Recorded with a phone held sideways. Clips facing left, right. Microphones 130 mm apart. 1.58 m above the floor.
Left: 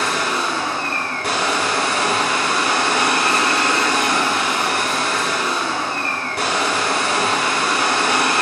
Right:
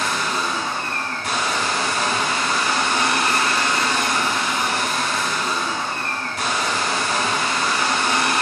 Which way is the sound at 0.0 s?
65° left (ahead or behind).